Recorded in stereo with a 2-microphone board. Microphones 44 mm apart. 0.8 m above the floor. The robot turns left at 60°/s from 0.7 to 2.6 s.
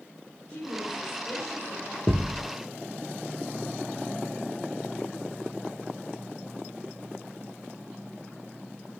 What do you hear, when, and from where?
0.5 s a woman speaking: 165° left, 3.5 m; by 2.0 s 90° left, 3.5 m
2.1 s a thud: 40° left (ahead or behind), 0.6 m; by 2.4 s 20° left (ahead or behind), 0.6 m